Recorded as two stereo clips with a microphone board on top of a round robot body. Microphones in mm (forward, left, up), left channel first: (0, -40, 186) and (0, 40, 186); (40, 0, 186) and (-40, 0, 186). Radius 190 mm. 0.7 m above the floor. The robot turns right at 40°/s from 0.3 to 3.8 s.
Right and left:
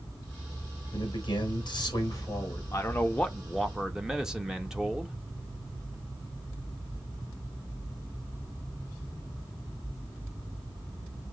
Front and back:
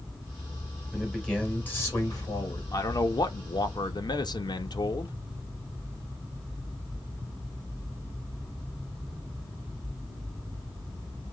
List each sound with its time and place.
0.9 s a man speaking: 95° right, 4 m; by 2.6 s 25° right, 4 m
2.7 s a man speaking: 35° right, 1.6 m; by 5.2 s 10° left, 1.6 m